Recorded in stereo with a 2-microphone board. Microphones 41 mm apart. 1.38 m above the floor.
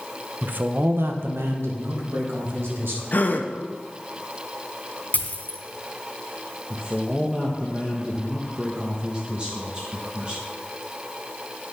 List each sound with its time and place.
0.4 s a man speaking: 40° right (ahead or behind), 0.9 m; by 3.0 s 75° right (ahead or behind), 2.5 m
3.1 s a gasp: 45° left (ahead or behind), 0.8 m
5.1 s a dropped coin: 40° left (ahead or behind), 1.7 m
6.7 s a man speaking: 25° right (ahead or behind), 1.1 m